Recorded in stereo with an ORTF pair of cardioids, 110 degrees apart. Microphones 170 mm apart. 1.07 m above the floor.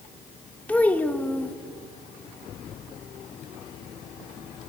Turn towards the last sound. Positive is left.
turn(degrees=10)